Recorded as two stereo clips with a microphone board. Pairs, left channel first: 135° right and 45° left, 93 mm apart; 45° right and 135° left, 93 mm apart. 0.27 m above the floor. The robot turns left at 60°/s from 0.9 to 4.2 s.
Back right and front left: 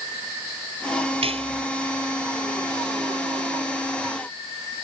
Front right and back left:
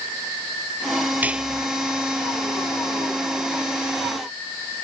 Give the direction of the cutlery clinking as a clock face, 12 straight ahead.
10 o'clock.